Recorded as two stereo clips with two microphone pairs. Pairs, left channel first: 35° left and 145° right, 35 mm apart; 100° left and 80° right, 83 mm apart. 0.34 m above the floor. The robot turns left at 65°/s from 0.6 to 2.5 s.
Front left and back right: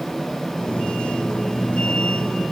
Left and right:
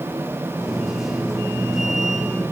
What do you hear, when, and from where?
Only background noise.